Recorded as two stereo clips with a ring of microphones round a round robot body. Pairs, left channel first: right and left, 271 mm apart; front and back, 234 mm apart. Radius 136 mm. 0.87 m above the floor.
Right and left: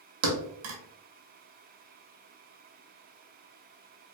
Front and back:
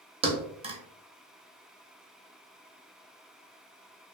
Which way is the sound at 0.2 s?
115° left.